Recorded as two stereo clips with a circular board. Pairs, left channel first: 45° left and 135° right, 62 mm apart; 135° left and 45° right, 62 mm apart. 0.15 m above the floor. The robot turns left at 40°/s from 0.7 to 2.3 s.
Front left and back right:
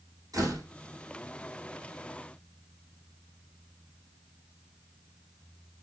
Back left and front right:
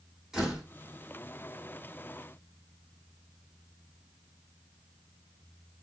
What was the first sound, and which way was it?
A door slam, 125° right.